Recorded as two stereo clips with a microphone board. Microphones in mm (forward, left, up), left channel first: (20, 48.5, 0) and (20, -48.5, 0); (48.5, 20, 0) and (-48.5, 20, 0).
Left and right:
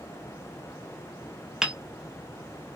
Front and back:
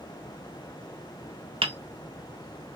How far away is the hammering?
About 0.6 m.